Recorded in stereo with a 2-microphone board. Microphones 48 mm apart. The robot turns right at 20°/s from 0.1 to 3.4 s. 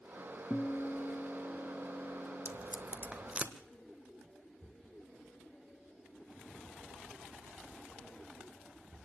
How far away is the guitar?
About 0.6 m.